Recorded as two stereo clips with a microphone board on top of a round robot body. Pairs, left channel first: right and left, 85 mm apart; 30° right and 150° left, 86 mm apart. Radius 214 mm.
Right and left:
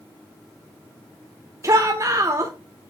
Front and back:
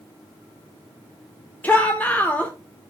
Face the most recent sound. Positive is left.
turn(degrees=40)